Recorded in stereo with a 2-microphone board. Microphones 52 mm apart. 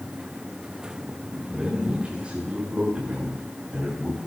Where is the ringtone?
No ringtone in this recording.